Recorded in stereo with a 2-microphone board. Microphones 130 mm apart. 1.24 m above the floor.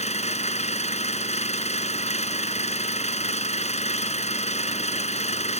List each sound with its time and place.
0.0 s an engine running: 55° left (ahead or behind)